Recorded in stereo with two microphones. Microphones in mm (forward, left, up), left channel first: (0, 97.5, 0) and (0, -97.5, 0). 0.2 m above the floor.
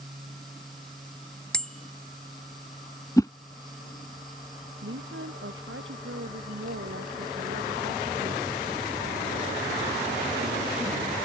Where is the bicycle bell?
5° left (ahead or behind).